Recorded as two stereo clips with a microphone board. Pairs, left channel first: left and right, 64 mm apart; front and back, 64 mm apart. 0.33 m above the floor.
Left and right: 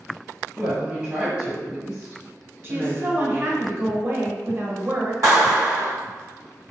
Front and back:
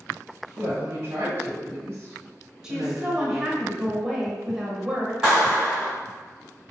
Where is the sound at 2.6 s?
105° right, 1.1 m.